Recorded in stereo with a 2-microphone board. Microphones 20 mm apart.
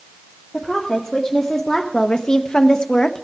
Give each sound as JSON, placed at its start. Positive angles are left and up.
{"t": 0.5, "sound": "a woman speaking", "side_deg": 10, "distance_m": 1.8}